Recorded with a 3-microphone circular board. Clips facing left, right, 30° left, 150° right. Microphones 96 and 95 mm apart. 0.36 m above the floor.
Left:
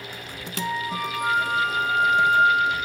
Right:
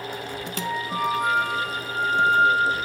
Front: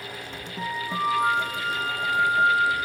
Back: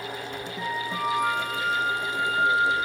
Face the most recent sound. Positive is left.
turn(degrees=-30)